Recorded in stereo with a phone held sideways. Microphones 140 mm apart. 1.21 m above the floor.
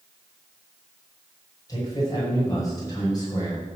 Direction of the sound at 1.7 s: 25° left (ahead or behind).